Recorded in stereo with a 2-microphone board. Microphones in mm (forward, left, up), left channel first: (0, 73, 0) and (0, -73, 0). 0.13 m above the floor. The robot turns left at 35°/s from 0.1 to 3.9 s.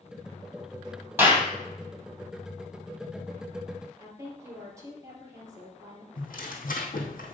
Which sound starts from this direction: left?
Tearing paper, at 6.2 s.